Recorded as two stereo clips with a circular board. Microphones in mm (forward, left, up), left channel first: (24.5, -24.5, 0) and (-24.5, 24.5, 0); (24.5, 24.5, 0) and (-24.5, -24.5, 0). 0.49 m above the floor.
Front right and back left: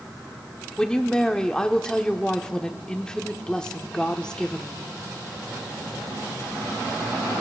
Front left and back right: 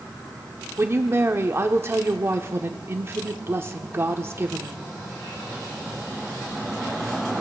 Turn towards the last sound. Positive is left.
turn(degrees=-120)